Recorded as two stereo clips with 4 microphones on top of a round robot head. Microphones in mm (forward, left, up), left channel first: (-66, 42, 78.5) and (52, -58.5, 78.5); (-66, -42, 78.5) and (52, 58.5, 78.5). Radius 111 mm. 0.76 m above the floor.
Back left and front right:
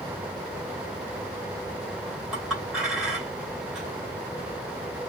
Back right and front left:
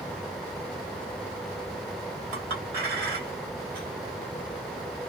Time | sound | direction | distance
2.3 | a clink | 45° left | 2 m